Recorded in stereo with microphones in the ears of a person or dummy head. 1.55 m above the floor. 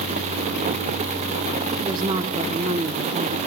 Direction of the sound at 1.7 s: 20° right (ahead or behind).